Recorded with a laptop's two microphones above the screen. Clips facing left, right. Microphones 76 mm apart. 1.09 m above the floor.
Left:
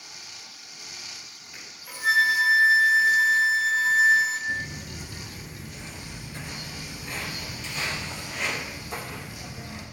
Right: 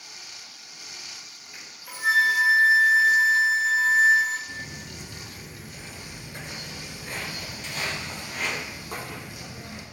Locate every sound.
1.5 s a flute: centre (ahead or behind), 1.4 m
4.5 s footsteps: 20° left (ahead or behind), 1.2 m; by 9.8 s 50° right (ahead or behind), 2.5 m